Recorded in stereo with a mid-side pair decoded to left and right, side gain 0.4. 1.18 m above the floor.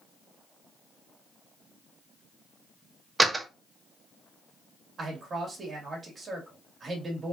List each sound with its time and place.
3.2 s a door slam: 20° right, 0.8 m
5.0 s a man speaking: 45° right, 1.9 m